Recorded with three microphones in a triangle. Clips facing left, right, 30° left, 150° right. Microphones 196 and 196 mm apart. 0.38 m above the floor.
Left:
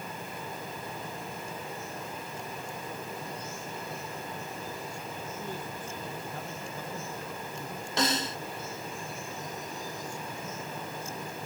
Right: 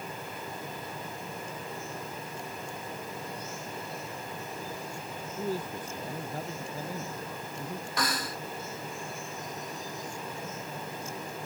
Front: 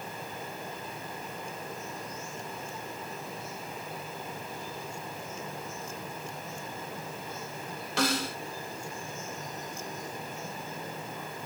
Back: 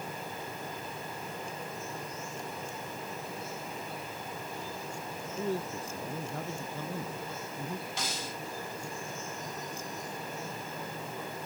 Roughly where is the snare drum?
Ahead left.